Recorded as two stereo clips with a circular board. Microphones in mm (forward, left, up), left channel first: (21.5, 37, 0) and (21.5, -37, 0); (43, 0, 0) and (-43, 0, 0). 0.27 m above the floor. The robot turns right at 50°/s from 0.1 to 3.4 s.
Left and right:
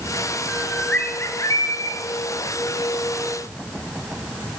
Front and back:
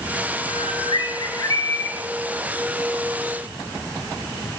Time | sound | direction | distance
0.5 | a bird | 5° right | 1.5 m